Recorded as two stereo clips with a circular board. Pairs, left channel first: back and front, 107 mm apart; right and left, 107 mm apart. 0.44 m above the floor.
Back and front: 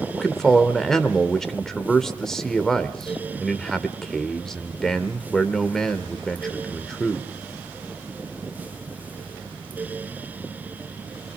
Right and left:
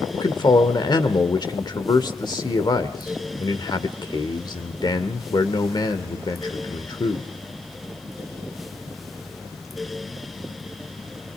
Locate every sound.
0.1 s a man speaking: 95° right, 1.2 m